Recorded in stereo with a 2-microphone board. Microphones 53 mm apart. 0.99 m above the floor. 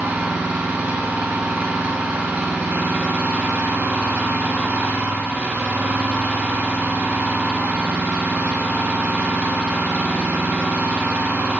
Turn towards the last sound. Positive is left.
turn(degrees=-35)  # may be behind; listen again after turning